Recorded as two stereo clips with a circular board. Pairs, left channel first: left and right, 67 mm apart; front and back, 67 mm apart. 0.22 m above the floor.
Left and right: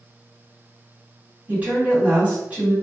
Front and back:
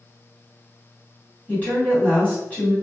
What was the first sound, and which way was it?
A woman speaking, 40° right.